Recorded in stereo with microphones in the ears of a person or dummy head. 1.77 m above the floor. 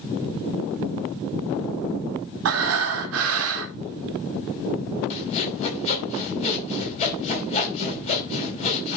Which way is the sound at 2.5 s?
70° right (ahead or behind).